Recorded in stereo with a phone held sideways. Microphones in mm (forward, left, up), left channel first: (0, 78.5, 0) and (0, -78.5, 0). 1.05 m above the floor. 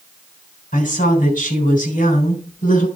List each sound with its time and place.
0.7 s a woman speaking: 65° left (ahead or behind), 3 m